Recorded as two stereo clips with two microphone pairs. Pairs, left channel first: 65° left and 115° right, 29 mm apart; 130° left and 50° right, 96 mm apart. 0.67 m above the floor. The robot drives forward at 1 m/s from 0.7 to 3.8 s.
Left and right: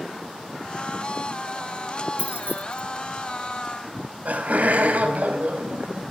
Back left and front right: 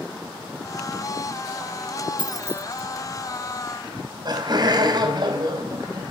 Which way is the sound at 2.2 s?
80° right.